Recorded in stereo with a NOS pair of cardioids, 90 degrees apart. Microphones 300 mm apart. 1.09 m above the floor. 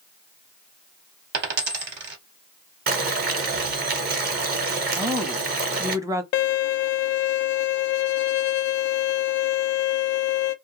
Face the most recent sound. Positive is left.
turn(degrees=65)